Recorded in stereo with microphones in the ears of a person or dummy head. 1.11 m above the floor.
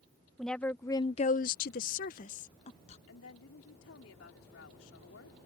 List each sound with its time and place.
0.4 s a woman speaking: 5° left (ahead or behind); by 3.0 s 35° left (ahead or behind)
3.1 s a woman speaking: 70° left (ahead or behind)